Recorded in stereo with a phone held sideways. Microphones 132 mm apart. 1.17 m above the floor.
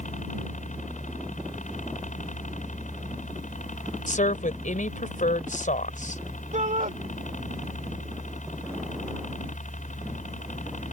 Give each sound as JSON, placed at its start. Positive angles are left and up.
{"t": 0.0, "sound": "a helicopter", "side_deg": 75}
{"t": 4.1, "sound": "a woman speaking", "side_deg": 85}
{"t": 6.5, "sound": "a shout", "side_deg": -75}